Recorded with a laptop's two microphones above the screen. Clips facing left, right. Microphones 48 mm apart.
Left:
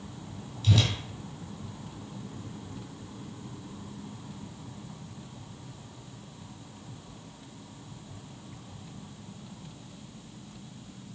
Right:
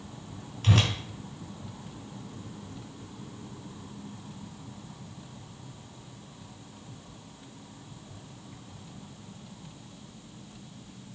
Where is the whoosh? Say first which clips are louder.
Right 1 dB; 60° right (ahead or behind), 2.5 m.